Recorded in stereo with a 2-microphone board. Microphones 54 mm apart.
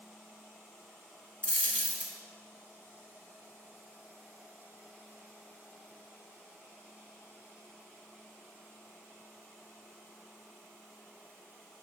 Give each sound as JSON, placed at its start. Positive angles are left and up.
{"t": 1.4, "sound": "a dropped coin", "side_deg": 25, "distance_m": 1.0}